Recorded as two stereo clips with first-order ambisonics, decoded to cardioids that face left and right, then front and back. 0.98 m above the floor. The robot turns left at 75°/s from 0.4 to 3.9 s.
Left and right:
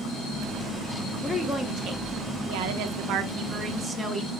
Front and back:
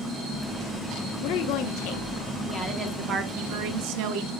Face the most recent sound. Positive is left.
turn(degrees=175)